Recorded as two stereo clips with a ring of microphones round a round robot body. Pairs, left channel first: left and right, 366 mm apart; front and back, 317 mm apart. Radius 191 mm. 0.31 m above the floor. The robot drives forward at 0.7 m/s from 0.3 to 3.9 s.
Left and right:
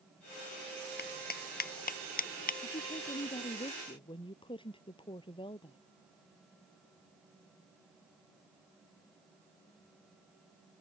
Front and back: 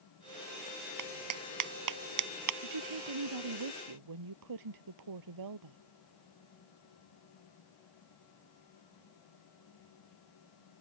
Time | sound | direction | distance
1.0 | a clap | 155° left | ?
2.6 | a woman speaking | 165° left | ?